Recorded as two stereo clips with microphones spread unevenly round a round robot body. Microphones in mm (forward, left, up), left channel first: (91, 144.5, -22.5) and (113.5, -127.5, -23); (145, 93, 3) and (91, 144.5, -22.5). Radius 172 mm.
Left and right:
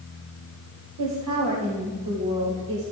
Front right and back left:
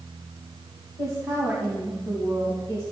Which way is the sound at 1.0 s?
105° right.